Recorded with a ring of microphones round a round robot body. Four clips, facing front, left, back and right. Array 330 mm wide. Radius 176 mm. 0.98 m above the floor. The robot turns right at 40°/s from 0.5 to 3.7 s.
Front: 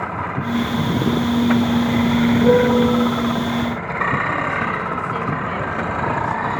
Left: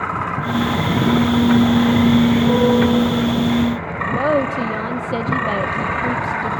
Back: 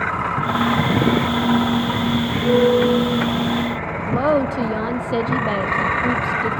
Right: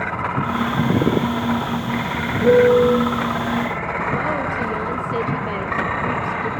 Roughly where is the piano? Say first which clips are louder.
Right 2 dB, back 1 dB; ahead.